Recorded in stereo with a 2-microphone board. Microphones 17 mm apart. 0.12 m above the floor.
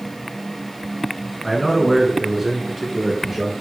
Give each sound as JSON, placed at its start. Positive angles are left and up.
{"t": 1.4, "sound": "a man speaking", "side_deg": -10, "distance_m": 1.1}